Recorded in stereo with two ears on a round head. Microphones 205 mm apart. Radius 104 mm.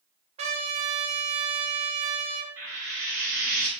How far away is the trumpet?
About 0.7 m.